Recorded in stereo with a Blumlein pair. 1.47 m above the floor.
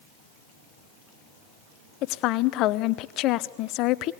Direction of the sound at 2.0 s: 40° left.